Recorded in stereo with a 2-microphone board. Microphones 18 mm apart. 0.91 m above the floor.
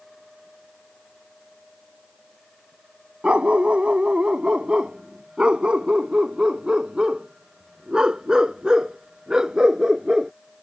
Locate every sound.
3.2 s a dog barking: 85° right; by 10.3 s 35° right (ahead or behind)